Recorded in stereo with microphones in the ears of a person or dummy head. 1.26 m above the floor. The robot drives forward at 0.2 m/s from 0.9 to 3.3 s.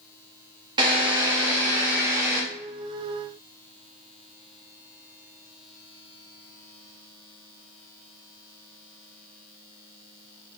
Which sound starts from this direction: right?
A drill, at 0.8 s.